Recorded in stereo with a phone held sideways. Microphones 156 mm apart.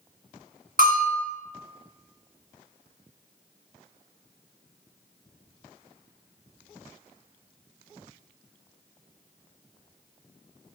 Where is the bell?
65° right (ahead or behind), 0.9 m.